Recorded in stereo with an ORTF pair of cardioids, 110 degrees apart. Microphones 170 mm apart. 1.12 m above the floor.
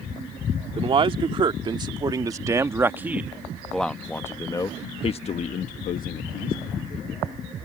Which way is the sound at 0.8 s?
35° right.